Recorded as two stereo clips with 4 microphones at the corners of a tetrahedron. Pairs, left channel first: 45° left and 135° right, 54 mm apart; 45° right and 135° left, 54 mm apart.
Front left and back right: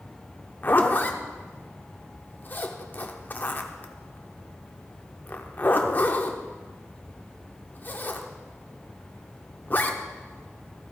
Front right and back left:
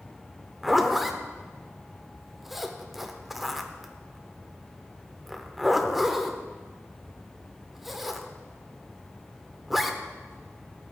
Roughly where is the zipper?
Ahead left.